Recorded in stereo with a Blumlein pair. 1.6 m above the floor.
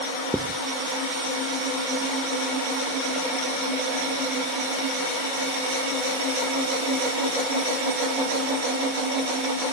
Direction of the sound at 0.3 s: 5° right.